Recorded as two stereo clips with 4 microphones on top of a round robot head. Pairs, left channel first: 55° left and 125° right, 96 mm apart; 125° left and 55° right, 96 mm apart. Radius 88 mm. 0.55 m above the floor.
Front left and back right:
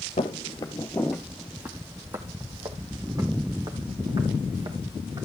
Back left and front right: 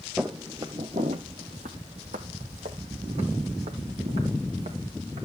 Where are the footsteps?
25° left, 0.8 m; by 5.2 s 80° right, 3.5 m.